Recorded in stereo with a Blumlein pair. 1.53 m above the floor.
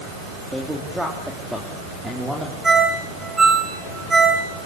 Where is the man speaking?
Straight ahead, 3 m.